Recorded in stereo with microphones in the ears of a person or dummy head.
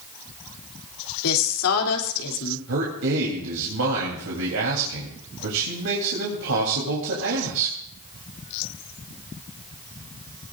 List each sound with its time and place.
1.2 s a woman speaking: 85° left, 3 m
2.7 s a man speaking: 80° right, 3.5 m